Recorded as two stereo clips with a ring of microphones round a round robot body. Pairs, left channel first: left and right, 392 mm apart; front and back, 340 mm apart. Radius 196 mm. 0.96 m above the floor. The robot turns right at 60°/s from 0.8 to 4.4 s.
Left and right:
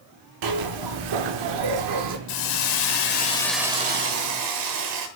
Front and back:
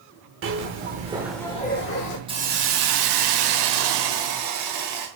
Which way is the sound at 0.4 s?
120° right.